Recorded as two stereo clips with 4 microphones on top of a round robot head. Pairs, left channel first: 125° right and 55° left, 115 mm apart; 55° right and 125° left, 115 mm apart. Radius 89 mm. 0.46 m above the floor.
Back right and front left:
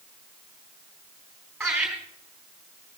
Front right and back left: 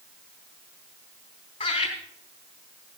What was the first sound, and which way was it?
Laughter, 30° right.